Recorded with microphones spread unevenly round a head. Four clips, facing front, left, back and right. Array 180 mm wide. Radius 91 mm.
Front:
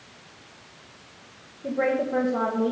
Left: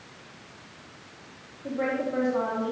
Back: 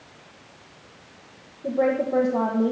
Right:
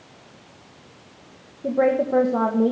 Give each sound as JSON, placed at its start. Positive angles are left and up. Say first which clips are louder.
{"t": 1.6, "sound": "a woman speaking", "louder": "right 9 dB, back 2 dB", "azimuth_deg": -100, "distance_m": 1.5}